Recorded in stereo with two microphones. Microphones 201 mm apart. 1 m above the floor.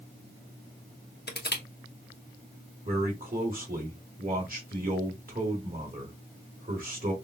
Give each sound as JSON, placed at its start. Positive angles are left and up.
{"t": 1.3, "sound": "crushing", "side_deg": 55, "distance_m": 1.0}
{"t": 2.9, "sound": "a man speaking", "side_deg": -45, "distance_m": 2.0}